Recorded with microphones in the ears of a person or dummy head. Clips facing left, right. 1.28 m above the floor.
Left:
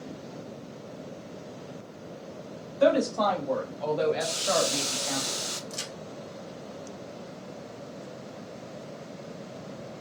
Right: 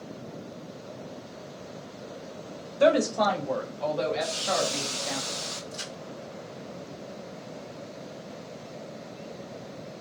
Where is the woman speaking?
35° right (ahead or behind), 0.9 m; by 5.2 s 40° left (ahead or behind), 1.5 m.